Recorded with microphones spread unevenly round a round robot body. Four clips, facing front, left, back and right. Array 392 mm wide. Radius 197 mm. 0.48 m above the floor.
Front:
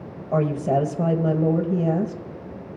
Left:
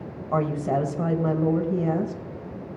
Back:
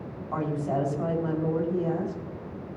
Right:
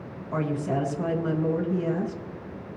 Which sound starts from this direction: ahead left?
A woman speaking, at 0.3 s.